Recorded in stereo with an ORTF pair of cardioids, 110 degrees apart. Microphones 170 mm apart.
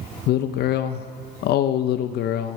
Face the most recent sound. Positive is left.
turn(degrees=70)